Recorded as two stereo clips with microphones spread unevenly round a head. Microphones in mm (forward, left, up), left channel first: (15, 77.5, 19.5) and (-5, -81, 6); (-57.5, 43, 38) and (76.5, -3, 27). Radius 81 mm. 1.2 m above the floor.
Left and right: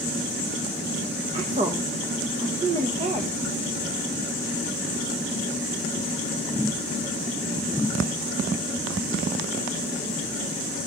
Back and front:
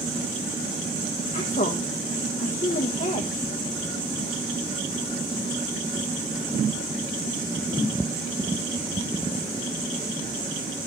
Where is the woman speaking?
150° right, 1.3 m.